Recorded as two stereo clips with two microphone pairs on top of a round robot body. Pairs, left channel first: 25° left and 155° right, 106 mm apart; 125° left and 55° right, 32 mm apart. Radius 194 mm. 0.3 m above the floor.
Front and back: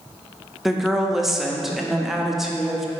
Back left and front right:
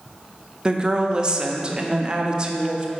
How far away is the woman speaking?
About 1.1 m.